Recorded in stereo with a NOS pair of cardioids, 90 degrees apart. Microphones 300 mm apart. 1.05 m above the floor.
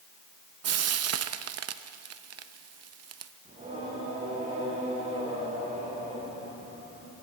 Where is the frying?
50° right, 0.7 m.